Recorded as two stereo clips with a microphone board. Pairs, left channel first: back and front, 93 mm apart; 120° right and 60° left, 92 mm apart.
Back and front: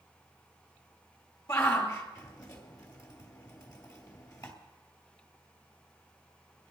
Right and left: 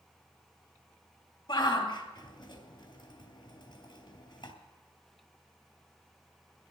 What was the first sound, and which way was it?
A shout, 135° right.